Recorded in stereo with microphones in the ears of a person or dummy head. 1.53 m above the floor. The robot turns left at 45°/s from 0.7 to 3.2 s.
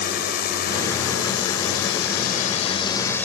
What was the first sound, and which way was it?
A drone, 60° left (ahead or behind).